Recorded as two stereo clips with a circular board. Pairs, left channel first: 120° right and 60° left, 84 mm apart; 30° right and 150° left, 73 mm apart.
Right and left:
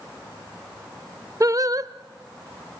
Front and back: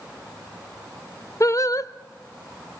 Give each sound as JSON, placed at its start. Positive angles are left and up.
{"t": 1.4, "sound": "singing", "azimuth_deg": 10, "distance_m": 0.6}